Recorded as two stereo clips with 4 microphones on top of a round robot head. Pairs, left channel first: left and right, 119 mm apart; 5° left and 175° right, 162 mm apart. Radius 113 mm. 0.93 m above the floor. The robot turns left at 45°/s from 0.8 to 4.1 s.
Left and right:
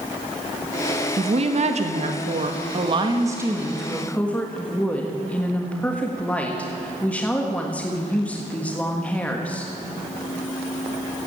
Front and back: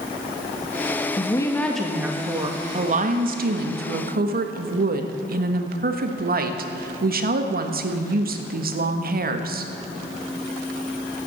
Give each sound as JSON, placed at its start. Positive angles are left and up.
{"t": 1.2, "sound": "a woman speaking", "azimuth_deg": -60, "distance_m": 1.4}